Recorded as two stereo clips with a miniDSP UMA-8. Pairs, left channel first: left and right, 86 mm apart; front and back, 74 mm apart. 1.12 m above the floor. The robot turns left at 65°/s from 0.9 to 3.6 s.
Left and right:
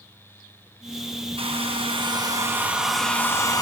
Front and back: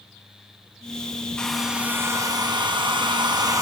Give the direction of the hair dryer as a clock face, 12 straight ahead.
3 o'clock.